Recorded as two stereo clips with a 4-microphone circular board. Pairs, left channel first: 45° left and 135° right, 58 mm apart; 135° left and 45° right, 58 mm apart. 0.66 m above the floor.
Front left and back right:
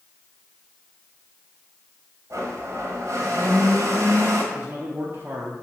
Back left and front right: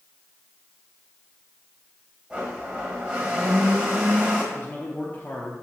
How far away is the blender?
About 1.3 m.